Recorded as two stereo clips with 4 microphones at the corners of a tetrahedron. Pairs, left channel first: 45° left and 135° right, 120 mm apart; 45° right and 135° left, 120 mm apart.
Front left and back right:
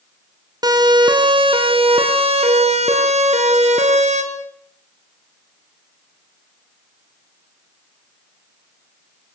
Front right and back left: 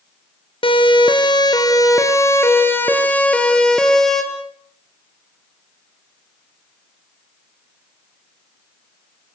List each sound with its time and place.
0.6 s a siren: 80° right, 3.5 m; by 4.2 s 130° right, 4.5 m